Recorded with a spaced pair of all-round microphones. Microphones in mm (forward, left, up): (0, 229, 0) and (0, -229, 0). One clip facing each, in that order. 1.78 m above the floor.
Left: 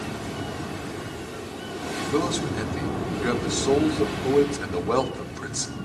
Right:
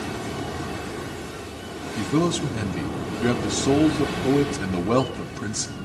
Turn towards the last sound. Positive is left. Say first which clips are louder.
# right 3 dB
turn(degrees=-50)  # may be behind; listen again after turning